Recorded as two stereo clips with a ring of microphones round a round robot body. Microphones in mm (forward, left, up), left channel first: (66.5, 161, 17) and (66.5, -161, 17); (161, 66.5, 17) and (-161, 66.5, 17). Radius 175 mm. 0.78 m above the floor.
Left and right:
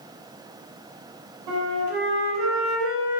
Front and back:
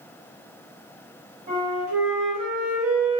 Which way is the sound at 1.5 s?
110° right.